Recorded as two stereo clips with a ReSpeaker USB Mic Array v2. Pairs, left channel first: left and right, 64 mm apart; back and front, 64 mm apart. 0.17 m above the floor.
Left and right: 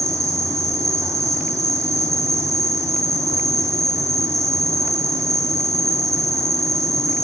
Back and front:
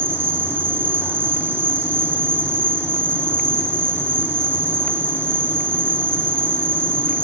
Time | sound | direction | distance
0.0 | an insect | 55° right | 0.8 m